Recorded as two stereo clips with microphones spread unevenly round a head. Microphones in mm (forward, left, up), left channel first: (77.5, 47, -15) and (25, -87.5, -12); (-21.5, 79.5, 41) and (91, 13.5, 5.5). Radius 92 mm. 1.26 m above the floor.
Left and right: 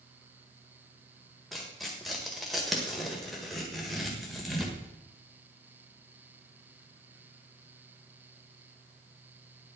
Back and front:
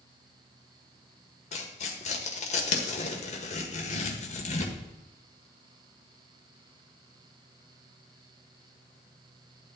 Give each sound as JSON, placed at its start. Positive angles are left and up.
{"t": 1.5, "sound": "tearing paper", "azimuth_deg": 160, "distance_m": 1.5}